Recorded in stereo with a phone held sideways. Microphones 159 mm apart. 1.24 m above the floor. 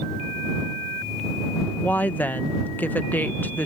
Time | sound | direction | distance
1.8 | a woman speaking | 10° left (ahead or behind) | ?